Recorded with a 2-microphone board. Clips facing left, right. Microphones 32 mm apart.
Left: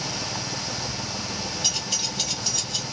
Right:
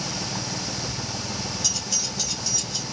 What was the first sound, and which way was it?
Keys jangling, 40° left (ahead or behind).